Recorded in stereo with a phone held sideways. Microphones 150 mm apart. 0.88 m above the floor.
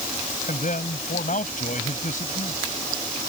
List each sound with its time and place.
0.5 s a man speaking: 60° left (ahead or behind)